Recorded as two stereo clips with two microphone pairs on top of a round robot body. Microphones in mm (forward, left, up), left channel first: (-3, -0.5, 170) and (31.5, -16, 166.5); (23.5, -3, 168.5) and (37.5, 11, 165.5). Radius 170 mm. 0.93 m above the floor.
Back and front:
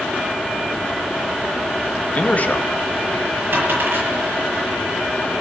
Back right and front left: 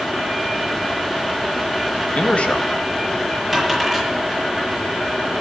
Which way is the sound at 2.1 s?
155° right.